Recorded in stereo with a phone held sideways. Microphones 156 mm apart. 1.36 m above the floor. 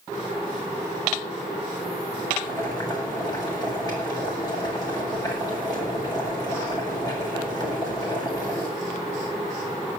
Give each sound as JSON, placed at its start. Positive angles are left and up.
{"t": 2.4, "sound": "boiling", "side_deg": 25, "distance_m": 8.5}